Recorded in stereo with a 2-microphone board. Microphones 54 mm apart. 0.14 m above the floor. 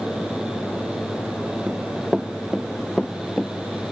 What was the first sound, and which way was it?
Running footsteps, 20° right (ahead or behind).